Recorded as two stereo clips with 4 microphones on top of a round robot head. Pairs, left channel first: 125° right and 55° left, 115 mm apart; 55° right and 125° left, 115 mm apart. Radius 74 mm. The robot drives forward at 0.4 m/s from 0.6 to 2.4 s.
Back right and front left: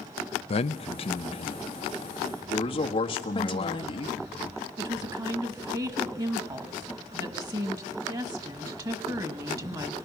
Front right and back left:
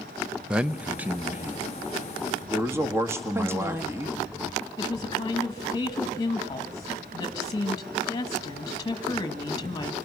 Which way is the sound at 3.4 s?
170° right.